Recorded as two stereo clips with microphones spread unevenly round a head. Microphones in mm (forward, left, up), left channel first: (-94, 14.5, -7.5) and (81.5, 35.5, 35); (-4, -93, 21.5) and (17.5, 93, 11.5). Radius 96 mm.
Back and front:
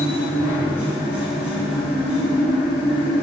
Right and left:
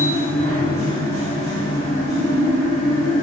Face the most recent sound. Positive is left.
turn(degrees=90)